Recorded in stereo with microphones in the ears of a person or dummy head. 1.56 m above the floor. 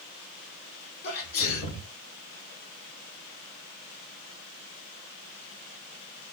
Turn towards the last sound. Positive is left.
turn(degrees=50)  # may be behind; listen again after turning